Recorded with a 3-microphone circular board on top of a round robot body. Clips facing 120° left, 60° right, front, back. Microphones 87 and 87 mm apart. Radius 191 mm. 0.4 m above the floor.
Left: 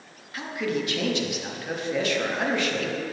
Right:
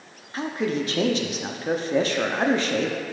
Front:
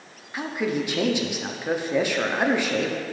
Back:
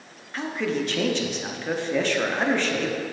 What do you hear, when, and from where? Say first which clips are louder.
0.3 s a man speaking: right 3 dB, even; 70° right, 1.1 m